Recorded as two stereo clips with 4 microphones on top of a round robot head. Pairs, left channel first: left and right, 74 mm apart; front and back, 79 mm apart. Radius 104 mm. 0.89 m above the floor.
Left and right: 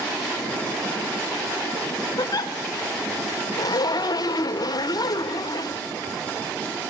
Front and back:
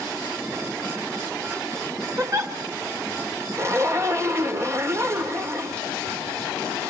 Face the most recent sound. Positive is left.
turn(degrees=125)